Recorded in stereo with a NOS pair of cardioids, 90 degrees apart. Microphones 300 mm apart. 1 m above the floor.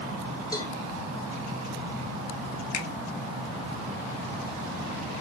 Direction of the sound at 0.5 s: 10° left.